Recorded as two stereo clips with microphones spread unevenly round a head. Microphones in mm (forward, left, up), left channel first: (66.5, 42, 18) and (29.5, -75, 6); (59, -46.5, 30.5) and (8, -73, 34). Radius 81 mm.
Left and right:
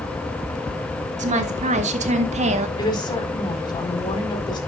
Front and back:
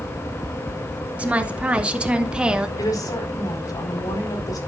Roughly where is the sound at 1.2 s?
Right.